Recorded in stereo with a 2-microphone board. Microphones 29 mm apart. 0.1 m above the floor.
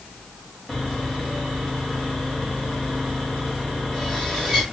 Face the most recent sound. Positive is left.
turn(degrees=15)  # may be behind; listen again after turning